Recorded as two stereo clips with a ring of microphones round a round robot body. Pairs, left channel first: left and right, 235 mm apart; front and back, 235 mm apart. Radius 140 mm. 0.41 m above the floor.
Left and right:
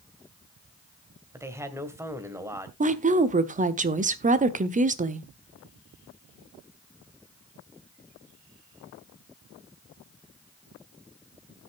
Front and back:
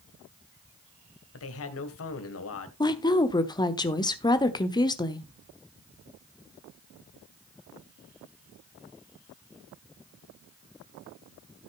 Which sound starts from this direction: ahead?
A man speaking, at 1.3 s.